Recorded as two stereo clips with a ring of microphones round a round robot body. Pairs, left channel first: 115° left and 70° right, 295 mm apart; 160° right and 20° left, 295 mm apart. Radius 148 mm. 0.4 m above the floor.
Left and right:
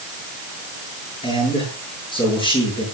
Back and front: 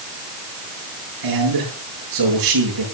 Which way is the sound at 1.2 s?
40° left.